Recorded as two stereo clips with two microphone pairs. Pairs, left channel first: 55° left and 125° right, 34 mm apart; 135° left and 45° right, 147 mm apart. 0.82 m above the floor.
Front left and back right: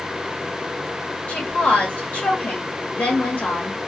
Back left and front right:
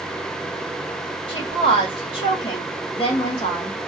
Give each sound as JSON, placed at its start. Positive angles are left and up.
{"t": 1.3, "sound": "a woman speaking", "azimuth_deg": 90, "distance_m": 1.6}